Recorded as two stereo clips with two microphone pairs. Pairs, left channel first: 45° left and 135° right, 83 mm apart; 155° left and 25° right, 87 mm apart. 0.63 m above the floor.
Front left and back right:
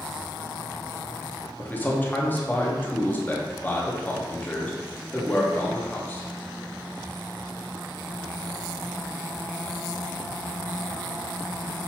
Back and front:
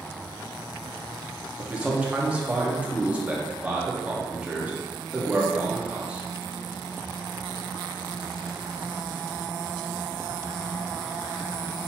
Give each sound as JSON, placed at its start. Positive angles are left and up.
{"t": 1.6, "sound": "a man speaking", "azimuth_deg": 30, "distance_m": 0.7}